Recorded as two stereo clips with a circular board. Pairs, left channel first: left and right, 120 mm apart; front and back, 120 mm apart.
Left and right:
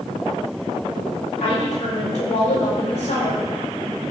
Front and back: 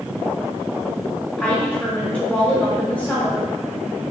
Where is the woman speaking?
95° left, 1.2 m.